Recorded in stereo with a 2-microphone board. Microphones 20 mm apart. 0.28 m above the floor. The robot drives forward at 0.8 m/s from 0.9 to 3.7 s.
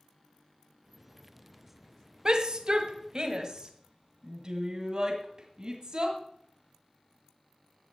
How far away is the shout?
About 1.5 m.